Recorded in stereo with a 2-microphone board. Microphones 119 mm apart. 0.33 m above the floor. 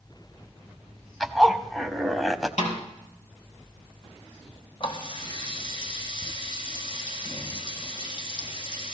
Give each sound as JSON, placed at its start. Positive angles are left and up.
{"t": 1.2, "sound": "a zipper", "side_deg": 0, "distance_m": 0.9}
{"t": 2.6, "sound": "a snare drum", "side_deg": 75, "distance_m": 4.0}
{"t": 4.8, "sound": "a running tap", "side_deg": 45, "distance_m": 1.7}